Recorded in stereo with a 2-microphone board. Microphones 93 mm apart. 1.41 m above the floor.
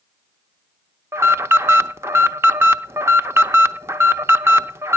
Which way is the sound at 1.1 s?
30° right (ahead or behind).